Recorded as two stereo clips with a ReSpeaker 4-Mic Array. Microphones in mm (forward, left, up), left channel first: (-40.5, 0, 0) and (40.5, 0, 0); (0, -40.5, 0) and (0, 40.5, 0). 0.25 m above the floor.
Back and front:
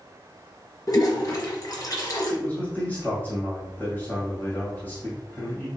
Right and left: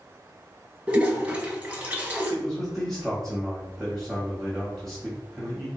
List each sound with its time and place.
0.9 s a toilet flushing: 160° left, 1.4 m
2.3 s a man speaking: 175° right, 1.6 m